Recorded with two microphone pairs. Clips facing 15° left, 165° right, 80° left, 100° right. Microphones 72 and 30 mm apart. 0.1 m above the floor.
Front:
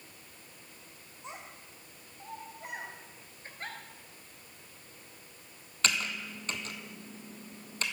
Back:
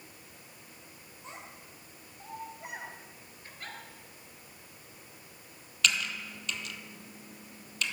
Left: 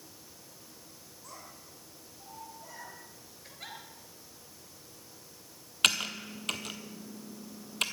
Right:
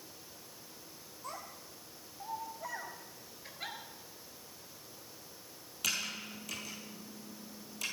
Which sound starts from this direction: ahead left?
Typing on a keyboard, at 5.8 s.